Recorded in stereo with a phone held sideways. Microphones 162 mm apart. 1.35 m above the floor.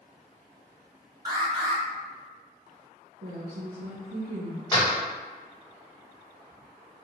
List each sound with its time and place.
1.2 s an alarm: 25° right (ahead or behind), 0.9 m
3.2 s a woman speaking: 65° right (ahead or behind), 0.6 m
4.7 s a door slam: 25° left (ahead or behind), 0.7 m